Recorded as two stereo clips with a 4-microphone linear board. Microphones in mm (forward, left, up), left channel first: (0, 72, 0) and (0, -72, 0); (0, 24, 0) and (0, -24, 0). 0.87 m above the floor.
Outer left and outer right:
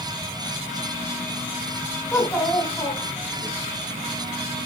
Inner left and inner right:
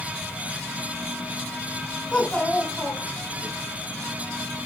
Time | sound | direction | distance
2.1 | a child speaking | 15° left (ahead or behind) | 5 m